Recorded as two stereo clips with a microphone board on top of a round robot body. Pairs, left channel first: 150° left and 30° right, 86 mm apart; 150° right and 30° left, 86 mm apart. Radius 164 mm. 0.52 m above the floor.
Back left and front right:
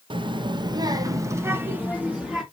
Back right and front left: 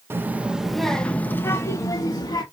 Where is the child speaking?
30° right, 0.8 m; by 2.4 s 110° right, 1.2 m.